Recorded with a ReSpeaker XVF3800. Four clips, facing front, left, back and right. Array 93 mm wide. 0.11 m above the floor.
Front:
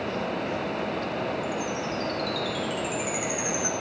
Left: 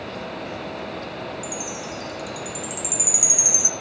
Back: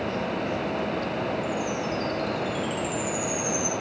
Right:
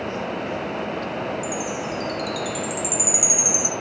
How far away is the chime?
About 1.0 m.